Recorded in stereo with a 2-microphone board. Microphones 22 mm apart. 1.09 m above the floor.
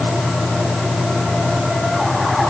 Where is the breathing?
No breathing in this recording.